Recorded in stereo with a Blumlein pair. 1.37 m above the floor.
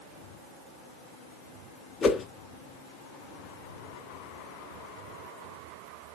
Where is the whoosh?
15° left, 0.6 m.